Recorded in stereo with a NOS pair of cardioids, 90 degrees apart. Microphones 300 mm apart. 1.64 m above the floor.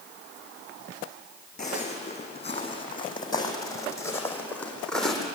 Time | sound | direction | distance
1.6 | footsteps | 25° left | 6 m